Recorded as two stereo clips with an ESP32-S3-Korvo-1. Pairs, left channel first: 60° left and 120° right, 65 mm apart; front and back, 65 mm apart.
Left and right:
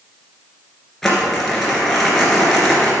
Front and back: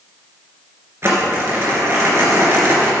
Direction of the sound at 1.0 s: 145° left.